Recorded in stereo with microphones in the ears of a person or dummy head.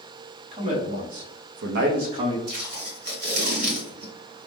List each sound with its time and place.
0.5 s a man speaking: 35° right (ahead or behind), 0.9 m; by 2.4 s 30° right (ahead or behind), 0.6 m
2.5 s tape being pulled: 50° right (ahead or behind), 1.0 m